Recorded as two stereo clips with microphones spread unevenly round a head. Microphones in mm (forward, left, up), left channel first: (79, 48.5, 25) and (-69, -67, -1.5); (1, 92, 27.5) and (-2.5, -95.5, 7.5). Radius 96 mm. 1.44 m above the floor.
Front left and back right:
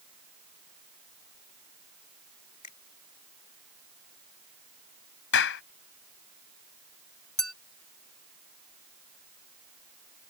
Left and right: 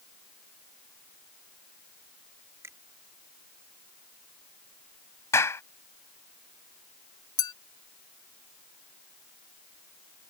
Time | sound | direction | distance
2.6 | a finger snap | 15° right | ?
5.3 | a clap | 15° left | ?
7.4 | a clink | 105° left | ?